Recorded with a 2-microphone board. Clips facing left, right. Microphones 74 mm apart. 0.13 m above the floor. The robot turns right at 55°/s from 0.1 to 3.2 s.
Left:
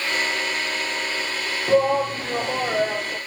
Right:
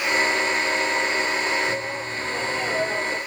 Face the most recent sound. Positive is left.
turn(degrees=-175)